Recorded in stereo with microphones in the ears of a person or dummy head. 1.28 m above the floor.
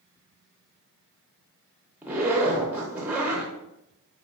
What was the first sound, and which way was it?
A zipper, 10° right (ahead or behind).